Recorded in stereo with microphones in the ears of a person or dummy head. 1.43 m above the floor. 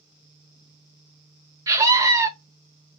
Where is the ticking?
I don't hear ticking.